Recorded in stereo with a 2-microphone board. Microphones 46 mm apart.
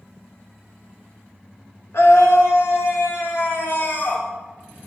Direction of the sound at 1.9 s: 85° left.